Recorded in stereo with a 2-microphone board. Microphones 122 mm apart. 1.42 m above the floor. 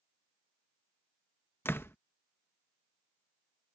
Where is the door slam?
20° left (ahead or behind).